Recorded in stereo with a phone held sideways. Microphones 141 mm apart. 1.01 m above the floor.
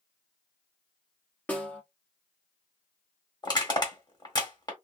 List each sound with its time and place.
1.5 s a snare drum: 10° left (ahead or behind), 0.9 m
3.4 s crushing: 35° left (ahead or behind), 1.4 m